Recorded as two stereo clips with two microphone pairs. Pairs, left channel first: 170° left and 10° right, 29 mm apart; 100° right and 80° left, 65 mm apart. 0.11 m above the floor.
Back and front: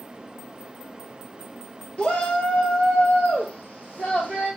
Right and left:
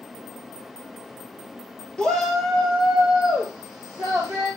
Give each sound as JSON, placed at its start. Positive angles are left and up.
{"t": 2.0, "sound": "a shout", "azimuth_deg": -170, "distance_m": 1.6}